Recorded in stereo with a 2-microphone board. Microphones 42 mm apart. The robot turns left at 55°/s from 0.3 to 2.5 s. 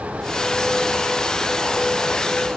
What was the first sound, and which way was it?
Only background noise.